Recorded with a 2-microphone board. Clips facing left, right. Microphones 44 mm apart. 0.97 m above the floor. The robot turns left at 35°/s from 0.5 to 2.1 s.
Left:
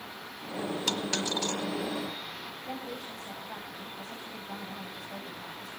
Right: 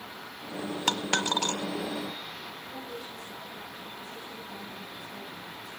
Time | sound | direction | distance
0.9 | a dropped coin | 45° right (ahead or behind) | 1.4 m
2.6 | a woman speaking | 85° left | 7.5 m